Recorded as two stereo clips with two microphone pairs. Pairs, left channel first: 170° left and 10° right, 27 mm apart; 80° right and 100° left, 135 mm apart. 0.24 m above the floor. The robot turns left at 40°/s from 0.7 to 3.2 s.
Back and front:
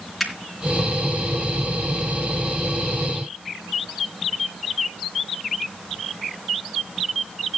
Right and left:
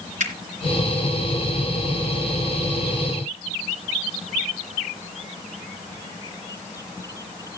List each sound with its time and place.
0.2 s a finger snap: 80° left, 3 m